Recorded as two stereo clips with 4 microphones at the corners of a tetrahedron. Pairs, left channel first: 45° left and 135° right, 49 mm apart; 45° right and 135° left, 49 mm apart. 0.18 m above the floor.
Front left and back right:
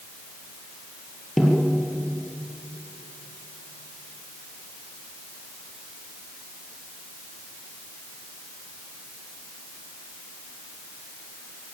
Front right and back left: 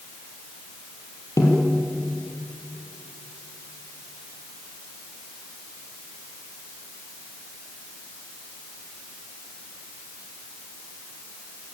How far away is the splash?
No splash in this recording.